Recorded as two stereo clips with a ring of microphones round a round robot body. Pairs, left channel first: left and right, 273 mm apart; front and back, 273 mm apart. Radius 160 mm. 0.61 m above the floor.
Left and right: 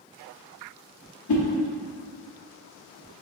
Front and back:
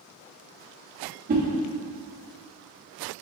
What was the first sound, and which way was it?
A whoosh, 120° left.